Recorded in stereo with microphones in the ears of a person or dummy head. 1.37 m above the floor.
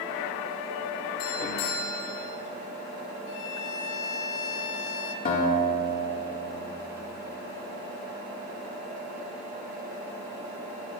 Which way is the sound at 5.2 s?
40° left (ahead or behind).